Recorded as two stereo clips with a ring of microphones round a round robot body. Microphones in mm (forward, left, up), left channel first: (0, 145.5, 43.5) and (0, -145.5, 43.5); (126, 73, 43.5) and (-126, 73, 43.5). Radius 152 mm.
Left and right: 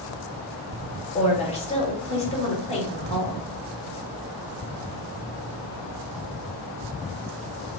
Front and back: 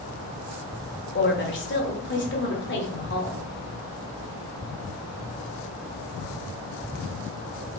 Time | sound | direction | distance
1.1 | a woman speaking | 25° left | 1.3 m